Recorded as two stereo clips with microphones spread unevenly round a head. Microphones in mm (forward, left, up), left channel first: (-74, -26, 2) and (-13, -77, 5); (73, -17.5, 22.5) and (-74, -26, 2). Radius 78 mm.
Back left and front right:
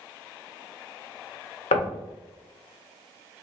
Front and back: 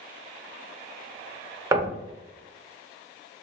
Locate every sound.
1.7 s knocking: 110° left, 0.6 m